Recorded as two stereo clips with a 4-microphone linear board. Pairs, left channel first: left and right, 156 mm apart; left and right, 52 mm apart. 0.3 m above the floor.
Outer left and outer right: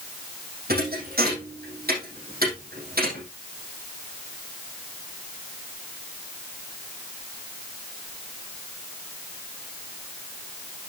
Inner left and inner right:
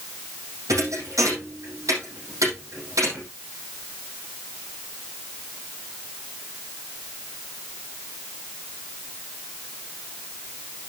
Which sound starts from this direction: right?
A thud, at 0.7 s.